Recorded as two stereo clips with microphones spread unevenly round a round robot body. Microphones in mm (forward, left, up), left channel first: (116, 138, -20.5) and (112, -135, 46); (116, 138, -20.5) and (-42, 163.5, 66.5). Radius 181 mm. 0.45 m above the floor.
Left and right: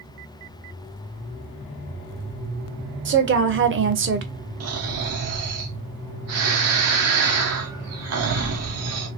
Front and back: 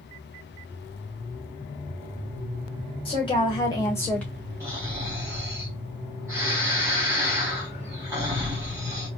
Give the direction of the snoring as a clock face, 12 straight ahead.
3 o'clock.